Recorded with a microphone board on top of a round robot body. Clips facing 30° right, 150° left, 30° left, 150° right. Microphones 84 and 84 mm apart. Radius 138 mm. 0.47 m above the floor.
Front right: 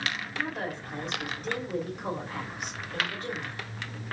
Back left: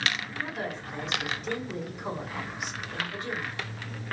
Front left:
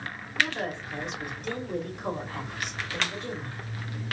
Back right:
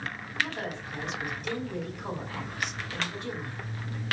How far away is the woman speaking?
About 2.5 m.